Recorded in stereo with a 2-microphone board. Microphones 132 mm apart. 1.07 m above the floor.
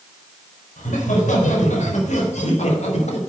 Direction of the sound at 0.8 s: 70° left (ahead or behind).